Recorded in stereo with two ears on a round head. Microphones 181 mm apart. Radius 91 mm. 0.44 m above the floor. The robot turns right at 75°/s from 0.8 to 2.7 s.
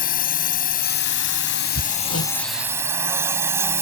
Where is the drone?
50° left; by 3.8 s 165° right.